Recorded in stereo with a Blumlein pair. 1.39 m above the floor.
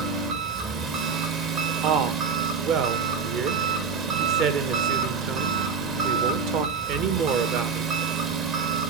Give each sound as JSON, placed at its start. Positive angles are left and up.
{"t": 0.0, "sound": "an engine running", "azimuth_deg": -30, "distance_m": 1.5}
{"t": 1.8, "sound": "a woman speaking", "azimuth_deg": -40, "distance_m": 1.6}